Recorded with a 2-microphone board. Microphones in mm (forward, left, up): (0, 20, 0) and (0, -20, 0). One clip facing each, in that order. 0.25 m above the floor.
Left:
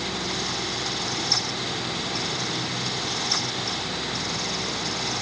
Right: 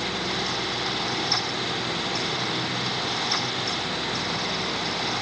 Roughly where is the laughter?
I don't hear laughter.